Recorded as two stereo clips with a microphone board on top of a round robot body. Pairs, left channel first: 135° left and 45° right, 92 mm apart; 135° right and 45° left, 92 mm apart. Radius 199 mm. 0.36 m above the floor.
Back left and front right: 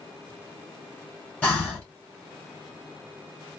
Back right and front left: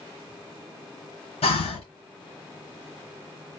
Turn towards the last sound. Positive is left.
turn(degrees=-150)